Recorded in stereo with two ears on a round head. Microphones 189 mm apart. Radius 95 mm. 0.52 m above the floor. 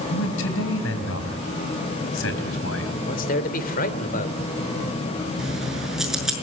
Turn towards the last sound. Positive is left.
turn(degrees=0)  # may be behind; listen again after turning